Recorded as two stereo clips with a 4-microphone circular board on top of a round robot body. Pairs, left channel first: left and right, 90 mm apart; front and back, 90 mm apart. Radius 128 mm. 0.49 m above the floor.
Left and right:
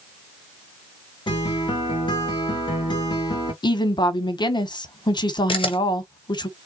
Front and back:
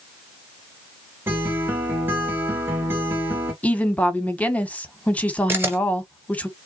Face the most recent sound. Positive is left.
turn(degrees=115)